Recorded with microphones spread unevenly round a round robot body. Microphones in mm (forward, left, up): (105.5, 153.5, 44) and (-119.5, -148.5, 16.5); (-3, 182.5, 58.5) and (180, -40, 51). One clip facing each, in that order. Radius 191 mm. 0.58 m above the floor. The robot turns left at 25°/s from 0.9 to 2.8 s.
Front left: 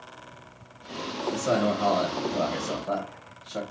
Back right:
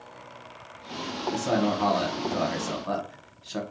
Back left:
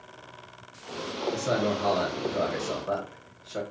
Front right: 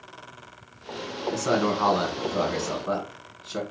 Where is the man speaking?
50° right, 1.3 m; by 3.6 s 90° right, 1.3 m.